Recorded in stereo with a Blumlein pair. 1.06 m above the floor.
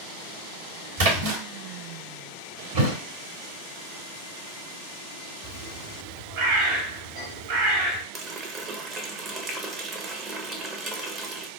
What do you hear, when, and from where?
1.0 s a splash: 55° right, 1.4 m
2.7 s a thud: 50° right, 1.8 m
5.4 s a bird: 55° right, 1.5 m
8.1 s a running tap: 25° right, 0.6 m